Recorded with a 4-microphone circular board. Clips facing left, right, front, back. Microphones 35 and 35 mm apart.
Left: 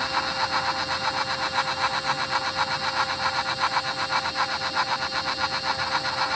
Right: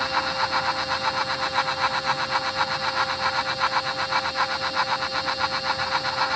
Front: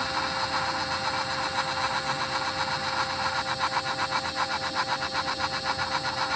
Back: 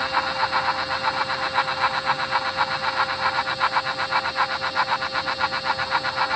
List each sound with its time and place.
Only background noise.